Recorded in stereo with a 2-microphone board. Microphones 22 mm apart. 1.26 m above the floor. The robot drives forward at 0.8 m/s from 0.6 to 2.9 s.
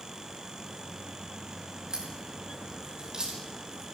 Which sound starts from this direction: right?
A crack, at 1.9 s.